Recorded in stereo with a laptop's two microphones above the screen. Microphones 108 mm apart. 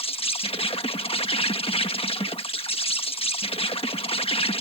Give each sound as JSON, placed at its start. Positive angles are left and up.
{"t": 0.0, "sound": "an insect", "side_deg": 60}